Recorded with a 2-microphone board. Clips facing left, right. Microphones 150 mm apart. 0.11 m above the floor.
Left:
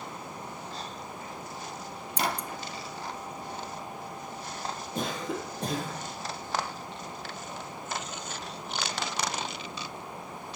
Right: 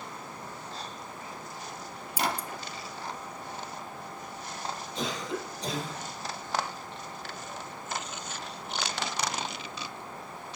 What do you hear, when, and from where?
2.2 s scissors: 5° right (ahead or behind), 0.6 m
5.0 s a cough: 55° left (ahead or behind), 3 m